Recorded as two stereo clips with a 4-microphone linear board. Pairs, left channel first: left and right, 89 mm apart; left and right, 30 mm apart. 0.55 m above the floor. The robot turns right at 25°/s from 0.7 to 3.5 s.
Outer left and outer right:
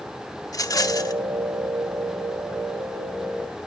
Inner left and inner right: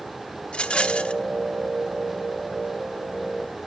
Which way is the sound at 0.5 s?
40° left (ahead or behind).